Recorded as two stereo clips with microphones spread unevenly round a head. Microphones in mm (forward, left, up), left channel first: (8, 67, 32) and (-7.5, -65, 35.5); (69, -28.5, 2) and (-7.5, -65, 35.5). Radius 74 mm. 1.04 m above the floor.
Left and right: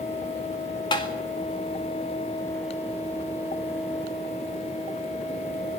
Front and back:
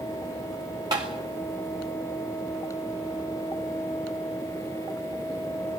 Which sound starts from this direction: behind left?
Tapping, at 0.9 s.